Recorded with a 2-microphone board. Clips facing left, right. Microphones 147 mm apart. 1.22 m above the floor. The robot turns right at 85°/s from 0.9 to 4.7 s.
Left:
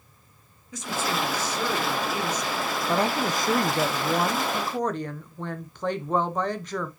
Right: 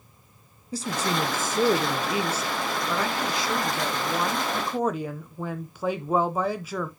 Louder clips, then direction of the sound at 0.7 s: Right 2 dB; 135° right.